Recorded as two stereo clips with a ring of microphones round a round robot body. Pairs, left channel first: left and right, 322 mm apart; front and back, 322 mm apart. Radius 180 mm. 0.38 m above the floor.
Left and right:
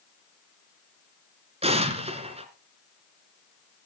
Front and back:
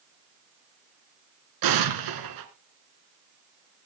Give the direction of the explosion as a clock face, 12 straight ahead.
5 o'clock.